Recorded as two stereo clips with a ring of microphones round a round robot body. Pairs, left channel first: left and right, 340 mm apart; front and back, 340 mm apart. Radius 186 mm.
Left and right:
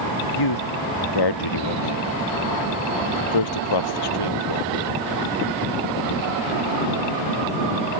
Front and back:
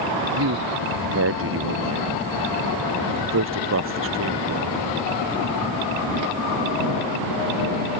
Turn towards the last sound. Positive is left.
turn(degrees=120)